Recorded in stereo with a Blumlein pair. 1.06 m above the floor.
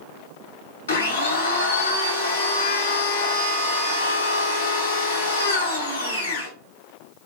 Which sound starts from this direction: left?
A blender, at 0.9 s.